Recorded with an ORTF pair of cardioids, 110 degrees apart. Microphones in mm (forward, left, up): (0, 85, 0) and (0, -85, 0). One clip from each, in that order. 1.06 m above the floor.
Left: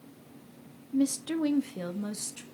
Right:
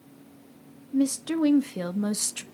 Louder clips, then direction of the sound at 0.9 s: Right 3 dB; 15° right.